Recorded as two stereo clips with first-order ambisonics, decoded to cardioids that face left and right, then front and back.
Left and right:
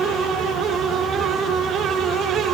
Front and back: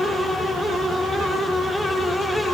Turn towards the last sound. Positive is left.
No sound to turn to.